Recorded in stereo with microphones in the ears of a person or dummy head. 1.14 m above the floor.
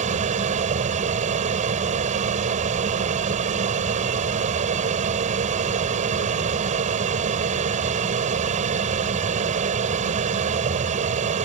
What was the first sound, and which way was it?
An aircraft, 40° right (ahead or behind).